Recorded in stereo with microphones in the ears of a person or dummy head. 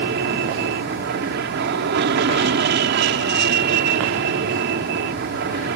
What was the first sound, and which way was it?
An aircraft, 55° right (ahead or behind).